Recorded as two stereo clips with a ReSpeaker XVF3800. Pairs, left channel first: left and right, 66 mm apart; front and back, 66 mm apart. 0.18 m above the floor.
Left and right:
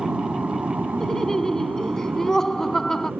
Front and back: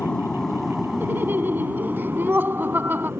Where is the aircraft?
55° right; by 3.2 s 145° right.